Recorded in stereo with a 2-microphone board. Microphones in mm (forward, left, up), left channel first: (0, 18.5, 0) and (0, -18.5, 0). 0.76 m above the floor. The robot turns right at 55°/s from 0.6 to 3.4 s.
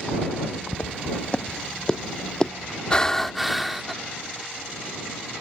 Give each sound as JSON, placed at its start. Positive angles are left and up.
{"t": 0.7, "sound": "footsteps", "side_deg": 45}
{"t": 2.9, "sound": "breathing", "side_deg": 25}